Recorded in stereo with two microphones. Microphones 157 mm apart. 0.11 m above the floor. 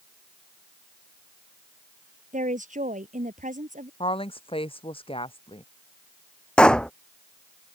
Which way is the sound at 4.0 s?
35° left (ahead or behind).